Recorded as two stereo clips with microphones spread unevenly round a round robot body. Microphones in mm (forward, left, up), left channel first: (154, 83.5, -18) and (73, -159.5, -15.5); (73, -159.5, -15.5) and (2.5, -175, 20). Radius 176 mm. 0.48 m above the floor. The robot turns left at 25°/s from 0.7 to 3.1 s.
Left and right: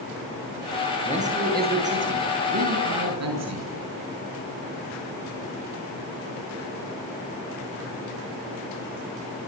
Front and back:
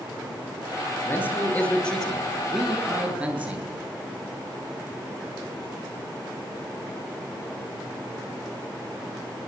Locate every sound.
1.0 s a man speaking: 40° right, 9 m; by 3.7 s 95° right, 9 m